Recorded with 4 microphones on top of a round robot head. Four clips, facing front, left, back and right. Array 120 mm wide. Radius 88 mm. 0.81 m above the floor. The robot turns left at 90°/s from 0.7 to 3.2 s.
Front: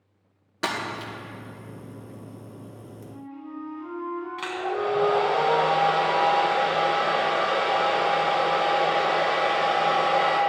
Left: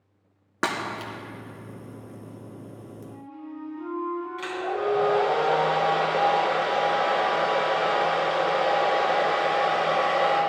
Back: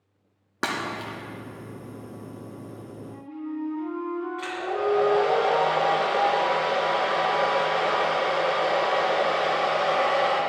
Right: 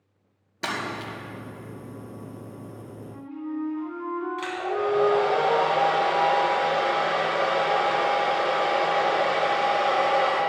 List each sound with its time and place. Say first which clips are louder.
0.6 s breaking glass: left 2 dB, even; 120° left, 1.7 m; by 1.1 s 80° left, 1.7 m
3.0 s a flute: right 7 dB, back 5 dB; 85° right, 3 m; by 5.4 s 100° right, 3 m
4.4 s a hair dryer: even, front 2 dB; 15° right, 2.5 m